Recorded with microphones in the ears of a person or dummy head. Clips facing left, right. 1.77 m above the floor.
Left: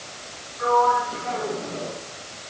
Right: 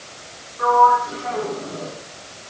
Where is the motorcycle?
I don't hear a motorcycle.